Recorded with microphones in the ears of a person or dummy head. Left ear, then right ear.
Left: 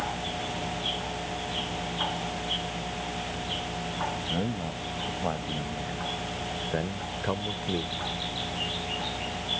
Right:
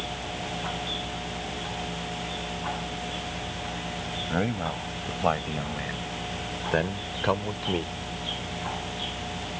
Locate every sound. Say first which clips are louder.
4.3 s a man speaking: right 3 dB; 55° right (ahead or behind); by 8.0 s 20° right (ahead or behind)